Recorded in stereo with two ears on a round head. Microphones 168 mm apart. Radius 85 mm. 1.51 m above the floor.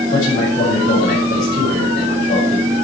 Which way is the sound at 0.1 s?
45° left (ahead or behind).